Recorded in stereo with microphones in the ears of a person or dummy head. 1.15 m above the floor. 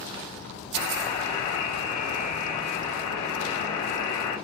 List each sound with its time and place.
0.7 s a buzzer: 30° left (ahead or behind), 6.5 m